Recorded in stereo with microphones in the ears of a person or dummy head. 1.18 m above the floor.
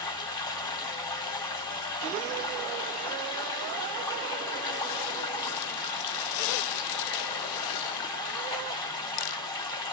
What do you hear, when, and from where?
0.0 s running water: 15° left (ahead or behind), 1.5 m